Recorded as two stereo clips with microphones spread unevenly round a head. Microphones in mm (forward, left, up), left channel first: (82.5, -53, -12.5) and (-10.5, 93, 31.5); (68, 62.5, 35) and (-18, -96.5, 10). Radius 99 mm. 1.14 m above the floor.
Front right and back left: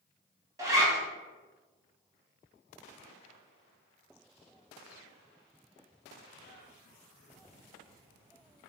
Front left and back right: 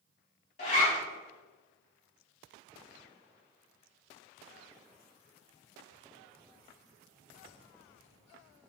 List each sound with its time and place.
0.6 s a zipper: 80° left, 1.3 m